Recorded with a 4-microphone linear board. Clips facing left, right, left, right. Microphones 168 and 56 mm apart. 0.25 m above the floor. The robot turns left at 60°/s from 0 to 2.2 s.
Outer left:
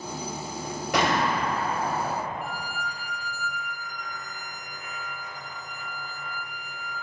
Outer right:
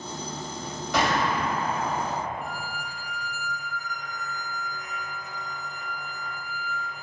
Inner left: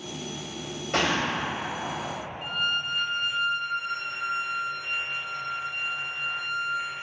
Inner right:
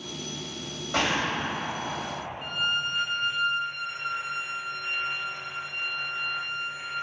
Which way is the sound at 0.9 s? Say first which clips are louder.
Even, inner left 1 dB; 90° left.